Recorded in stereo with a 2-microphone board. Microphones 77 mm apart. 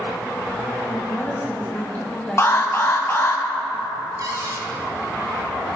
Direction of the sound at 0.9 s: 40° left (ahead or behind).